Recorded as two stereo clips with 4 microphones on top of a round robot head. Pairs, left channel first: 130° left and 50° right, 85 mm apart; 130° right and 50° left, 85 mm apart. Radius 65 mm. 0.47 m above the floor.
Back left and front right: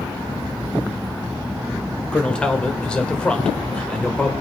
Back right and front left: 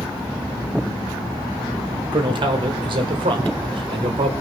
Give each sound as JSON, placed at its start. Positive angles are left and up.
{"t": 2.1, "sound": "a man speaking", "azimuth_deg": 55, "distance_m": 1.6}